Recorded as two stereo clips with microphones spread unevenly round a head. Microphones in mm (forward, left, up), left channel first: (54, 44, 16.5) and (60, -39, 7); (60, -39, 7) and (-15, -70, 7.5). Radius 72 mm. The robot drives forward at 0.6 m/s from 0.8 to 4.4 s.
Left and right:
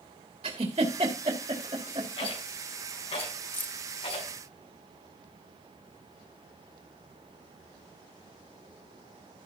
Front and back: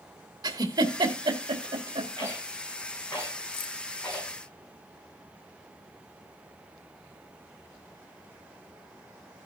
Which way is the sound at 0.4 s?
125° right.